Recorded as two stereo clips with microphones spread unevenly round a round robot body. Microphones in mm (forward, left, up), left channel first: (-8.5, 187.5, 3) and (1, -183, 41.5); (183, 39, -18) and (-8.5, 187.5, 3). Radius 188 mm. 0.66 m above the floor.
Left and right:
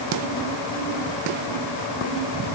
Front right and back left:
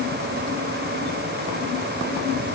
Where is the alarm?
I don't hear an alarm.